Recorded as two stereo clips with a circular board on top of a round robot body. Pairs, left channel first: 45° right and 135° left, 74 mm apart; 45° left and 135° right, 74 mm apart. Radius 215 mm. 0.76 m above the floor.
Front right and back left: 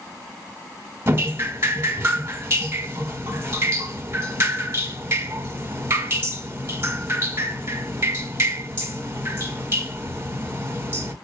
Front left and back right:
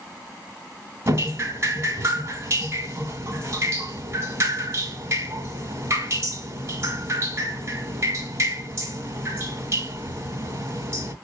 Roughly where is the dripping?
Behind.